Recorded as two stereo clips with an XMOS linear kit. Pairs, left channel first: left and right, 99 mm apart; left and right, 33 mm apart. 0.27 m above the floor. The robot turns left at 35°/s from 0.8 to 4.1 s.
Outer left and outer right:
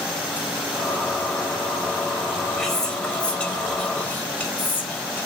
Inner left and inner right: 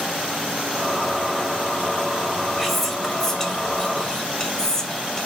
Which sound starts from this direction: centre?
Whispering, at 2.6 s.